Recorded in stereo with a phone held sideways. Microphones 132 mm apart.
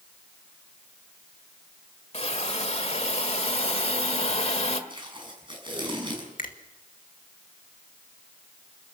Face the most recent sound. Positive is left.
turn(degrees=85)